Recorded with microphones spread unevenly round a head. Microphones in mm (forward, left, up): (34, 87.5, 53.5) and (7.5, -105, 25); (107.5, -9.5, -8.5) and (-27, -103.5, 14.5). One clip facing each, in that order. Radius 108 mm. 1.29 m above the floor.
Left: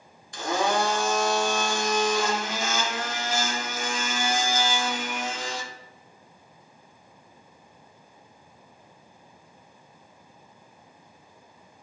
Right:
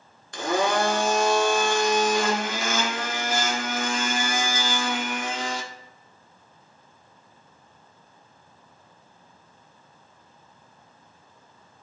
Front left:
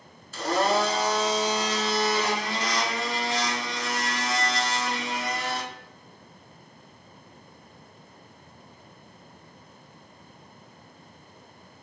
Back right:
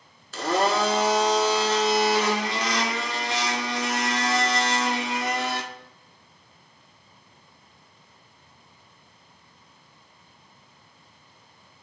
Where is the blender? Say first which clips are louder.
Right 2 dB, back right 1 dB; 120° right, 0.7 m.